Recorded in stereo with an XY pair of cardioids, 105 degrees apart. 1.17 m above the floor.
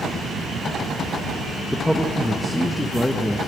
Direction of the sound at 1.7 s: 5° left.